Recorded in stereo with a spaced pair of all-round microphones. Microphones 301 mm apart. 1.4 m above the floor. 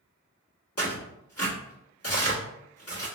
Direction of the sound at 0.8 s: 50° left (ahead or behind).